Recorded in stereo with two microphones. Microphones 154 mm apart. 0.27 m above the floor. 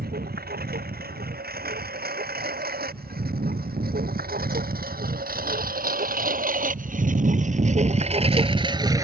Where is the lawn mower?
85° right; by 9.1 s 20° right (ahead or behind).